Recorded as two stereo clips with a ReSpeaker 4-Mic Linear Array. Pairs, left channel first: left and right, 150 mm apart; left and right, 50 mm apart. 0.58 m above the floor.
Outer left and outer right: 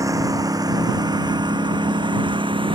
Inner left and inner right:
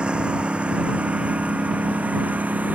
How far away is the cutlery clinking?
No cutlery clinking in this recording.